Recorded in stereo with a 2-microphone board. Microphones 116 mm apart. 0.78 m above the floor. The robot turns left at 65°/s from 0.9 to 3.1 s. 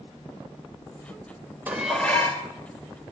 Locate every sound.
1.7 s dishes clattering: 165° right, 2 m; by 2.5 s 145° left, 2 m